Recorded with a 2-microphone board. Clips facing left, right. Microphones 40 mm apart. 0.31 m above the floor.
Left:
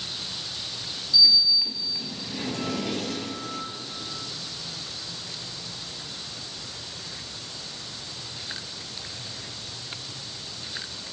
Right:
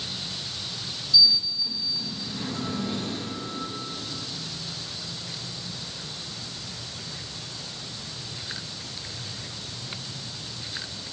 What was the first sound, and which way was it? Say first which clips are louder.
A sliding door: left 2 dB; 75° left (ahead or behind).